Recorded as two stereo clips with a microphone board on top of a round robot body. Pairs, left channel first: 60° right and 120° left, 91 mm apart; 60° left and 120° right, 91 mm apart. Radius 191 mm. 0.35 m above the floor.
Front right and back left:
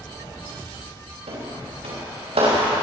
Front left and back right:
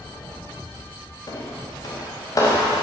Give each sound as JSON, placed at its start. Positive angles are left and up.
{"t": 1.3, "sound": "footsteps", "azimuth_deg": 110, "distance_m": 6.5}